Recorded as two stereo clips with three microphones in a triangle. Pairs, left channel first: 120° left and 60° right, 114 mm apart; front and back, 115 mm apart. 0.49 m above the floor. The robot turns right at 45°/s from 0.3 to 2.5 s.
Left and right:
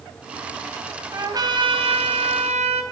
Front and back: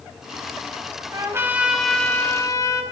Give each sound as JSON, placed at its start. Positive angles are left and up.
{"t": 1.1, "sound": "a trumpet", "azimuth_deg": -120, "distance_m": 3.5}